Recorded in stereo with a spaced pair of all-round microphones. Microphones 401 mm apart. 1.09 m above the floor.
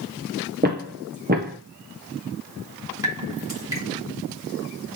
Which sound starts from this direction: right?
Footsteps, at 0.6 s.